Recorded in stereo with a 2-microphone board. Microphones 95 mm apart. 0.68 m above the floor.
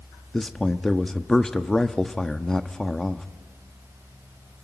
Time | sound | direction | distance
0.3 | a man speaking | 5° left (ahead or behind) | 0.8 m